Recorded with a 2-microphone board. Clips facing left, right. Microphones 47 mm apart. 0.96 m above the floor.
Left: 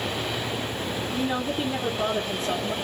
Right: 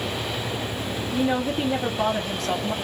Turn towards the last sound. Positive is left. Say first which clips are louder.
# right 5 dB
turn(degrees=-65)  # may be behind; listen again after turning